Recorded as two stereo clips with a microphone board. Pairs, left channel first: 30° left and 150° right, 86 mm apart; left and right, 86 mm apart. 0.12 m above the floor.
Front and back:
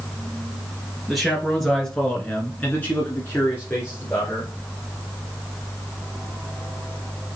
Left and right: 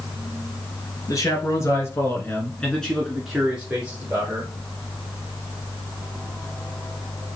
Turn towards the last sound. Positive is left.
turn(degrees=-30)